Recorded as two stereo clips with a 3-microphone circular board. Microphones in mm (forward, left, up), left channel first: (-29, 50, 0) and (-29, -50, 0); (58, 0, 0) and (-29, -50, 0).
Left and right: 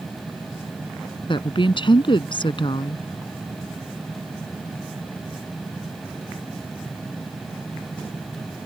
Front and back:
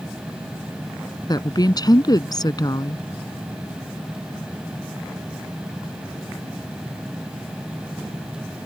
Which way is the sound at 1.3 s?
70° left.